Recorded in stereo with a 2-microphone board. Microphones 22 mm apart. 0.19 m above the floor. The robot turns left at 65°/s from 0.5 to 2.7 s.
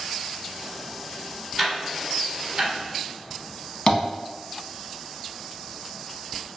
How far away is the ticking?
About 0.7 m.